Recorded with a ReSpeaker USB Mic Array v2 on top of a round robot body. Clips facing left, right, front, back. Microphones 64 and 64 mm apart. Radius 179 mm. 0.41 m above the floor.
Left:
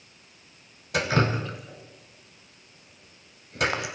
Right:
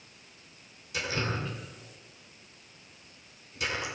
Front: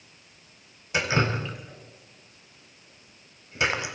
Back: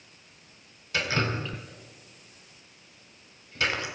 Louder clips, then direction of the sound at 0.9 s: Left 8 dB, front 3 dB; 70° left.